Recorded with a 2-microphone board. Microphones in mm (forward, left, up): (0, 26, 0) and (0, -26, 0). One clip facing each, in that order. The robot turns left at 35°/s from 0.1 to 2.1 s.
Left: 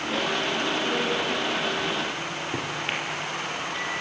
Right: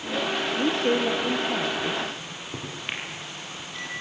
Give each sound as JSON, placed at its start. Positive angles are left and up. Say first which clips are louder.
{"t": 0.6, "sound": "a woman speaking", "louder": "right 3 dB", "azimuth_deg": -95, "distance_m": 2.5}
{"t": 2.2, "sound": "a microwave", "louder": "left 6 dB", "side_deg": 15, "distance_m": 4.5}